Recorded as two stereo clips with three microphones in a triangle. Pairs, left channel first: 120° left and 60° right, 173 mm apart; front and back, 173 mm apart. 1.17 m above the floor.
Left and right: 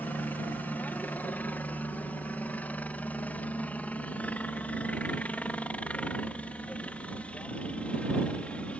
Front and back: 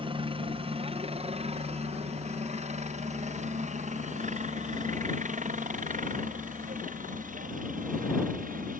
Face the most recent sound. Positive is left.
turn(degrees=-160)